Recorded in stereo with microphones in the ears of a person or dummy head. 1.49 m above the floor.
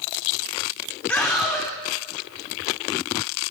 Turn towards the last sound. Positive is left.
turn(degrees=15)  # may be behind; listen again after turning